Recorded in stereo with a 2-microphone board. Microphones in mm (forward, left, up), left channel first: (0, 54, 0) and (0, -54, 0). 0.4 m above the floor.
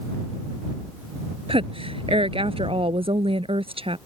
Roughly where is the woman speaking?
Right.